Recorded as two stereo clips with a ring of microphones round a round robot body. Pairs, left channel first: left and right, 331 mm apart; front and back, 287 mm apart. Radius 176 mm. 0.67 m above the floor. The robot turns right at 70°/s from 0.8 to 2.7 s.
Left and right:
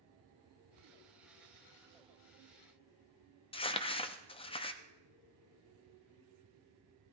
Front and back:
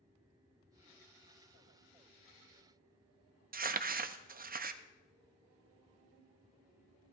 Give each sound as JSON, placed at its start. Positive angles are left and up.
{"t": 3.5, "sound": "crumpling", "azimuth_deg": 150, "distance_m": 0.6}